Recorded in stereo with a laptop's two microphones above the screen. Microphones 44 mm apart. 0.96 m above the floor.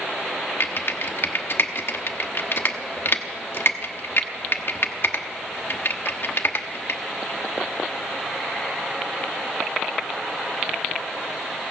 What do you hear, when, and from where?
0.6 s typing on a keyboard: 60° left (ahead or behind), 0.9 m